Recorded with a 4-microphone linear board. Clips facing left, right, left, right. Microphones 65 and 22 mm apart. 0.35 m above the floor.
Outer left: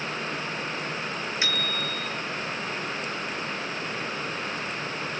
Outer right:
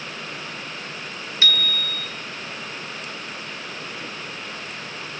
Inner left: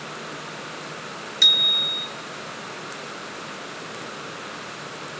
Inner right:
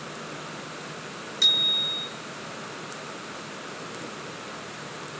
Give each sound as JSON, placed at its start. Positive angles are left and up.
{"t": 1.4, "sound": "a bicycle bell", "side_deg": 20, "distance_m": 3.5}